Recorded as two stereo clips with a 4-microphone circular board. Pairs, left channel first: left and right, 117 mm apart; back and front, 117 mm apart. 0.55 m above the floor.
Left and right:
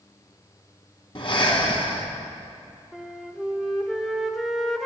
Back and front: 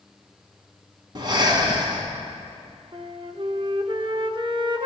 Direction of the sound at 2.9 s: Straight ahead.